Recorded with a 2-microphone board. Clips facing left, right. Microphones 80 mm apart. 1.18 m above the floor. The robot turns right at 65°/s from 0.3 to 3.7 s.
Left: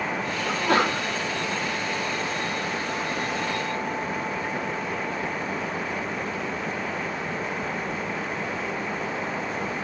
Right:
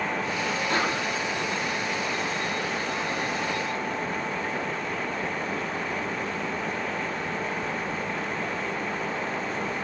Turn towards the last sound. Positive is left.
turn(degrees=-90)